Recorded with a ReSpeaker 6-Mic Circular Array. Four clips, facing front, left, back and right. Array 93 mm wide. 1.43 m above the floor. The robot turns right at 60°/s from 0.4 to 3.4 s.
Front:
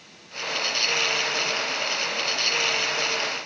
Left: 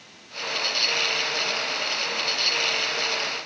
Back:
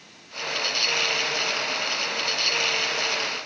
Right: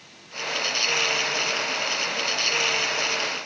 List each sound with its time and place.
Only background noise.